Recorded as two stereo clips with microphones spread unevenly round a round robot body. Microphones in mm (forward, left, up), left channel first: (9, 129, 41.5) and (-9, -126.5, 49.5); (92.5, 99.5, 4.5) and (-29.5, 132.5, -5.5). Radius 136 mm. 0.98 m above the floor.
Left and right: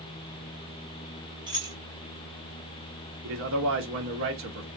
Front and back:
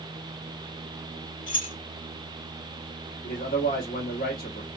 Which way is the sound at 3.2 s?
55° right.